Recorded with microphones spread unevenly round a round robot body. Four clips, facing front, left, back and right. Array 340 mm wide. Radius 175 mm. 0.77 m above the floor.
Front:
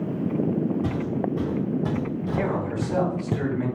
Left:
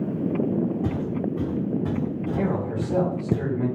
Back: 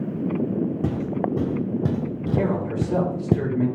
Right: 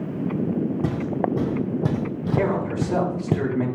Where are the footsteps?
145° right, 3 m; by 3.4 s 170° left, 0.9 m.